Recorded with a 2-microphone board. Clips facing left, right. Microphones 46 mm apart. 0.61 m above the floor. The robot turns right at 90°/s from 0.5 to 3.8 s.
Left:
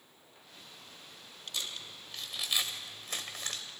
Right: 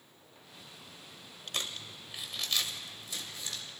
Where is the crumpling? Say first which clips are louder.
Right 2 dB; 65° right (ahead or behind), 1.9 m; by 3.6 s 60° left (ahead or behind), 1.9 m.